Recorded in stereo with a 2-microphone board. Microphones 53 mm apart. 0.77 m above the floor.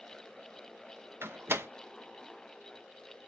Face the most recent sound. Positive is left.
turn(degrees=-45)  # may be behind; listen again after turning